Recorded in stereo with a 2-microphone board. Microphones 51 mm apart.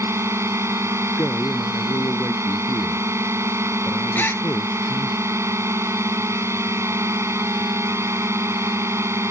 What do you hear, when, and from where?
0.0 s a drone: 60° right (ahead or behind)
1.2 s a man speaking: 55° left (ahead or behind)
4.2 s a gasp: 35° left (ahead or behind)